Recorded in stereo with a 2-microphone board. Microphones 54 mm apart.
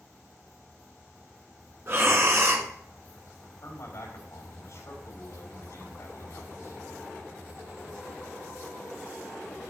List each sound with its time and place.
1.9 s breathing: 45° right (ahead or behind), 1.3 m
3.6 s a man speaking: 60° left (ahead or behind), 4 m